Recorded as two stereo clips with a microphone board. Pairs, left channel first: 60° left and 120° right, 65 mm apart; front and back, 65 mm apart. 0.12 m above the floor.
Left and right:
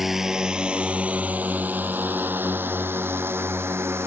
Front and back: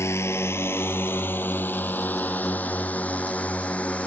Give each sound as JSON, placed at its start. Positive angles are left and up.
{"t": 0.0, "sound": "a drone", "azimuth_deg": -35}